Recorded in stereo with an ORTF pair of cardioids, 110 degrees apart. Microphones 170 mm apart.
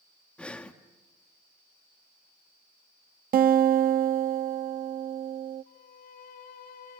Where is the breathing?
5° left, 1.4 m.